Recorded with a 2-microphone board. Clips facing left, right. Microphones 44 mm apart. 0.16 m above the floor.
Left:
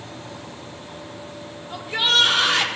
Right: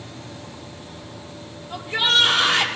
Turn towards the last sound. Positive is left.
turn(degrees=5)  # may be behind; listen again after turning